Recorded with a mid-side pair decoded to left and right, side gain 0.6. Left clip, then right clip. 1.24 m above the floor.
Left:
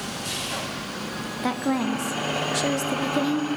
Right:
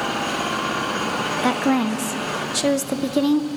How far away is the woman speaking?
About 0.6 m.